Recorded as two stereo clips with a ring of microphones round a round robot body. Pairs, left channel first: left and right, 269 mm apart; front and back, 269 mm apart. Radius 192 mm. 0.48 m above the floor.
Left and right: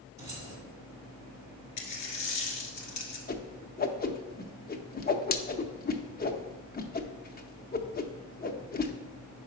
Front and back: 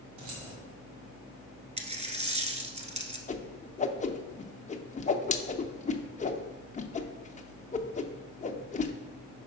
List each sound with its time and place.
0.2 s keys jangling: 170° right, 1.8 m
1.8 s a dropped coin: 115° left, 1.2 m
3.3 s a whoosh: 50° left, 0.6 m